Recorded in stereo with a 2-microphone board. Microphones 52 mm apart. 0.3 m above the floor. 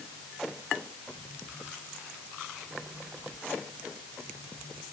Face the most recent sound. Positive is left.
No sound to turn to.